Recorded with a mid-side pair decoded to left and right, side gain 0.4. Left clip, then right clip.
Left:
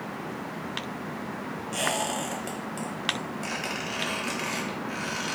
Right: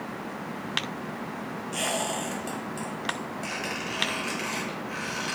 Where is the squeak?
20° left, 1.0 m.